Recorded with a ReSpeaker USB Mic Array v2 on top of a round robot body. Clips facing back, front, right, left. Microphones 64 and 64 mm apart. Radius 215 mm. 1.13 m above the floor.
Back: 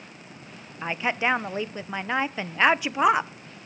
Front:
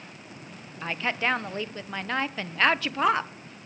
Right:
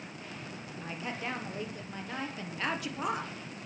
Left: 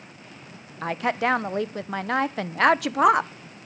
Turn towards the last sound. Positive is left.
turn(degrees=105)